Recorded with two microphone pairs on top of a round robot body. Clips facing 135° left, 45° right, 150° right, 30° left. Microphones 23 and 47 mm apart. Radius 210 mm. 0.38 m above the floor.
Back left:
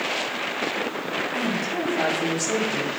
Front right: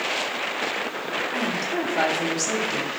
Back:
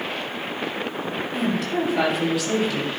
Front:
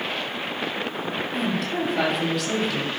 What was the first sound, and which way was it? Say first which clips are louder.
A woman speaking: front right 1 dB, back 3 dB; 65° right.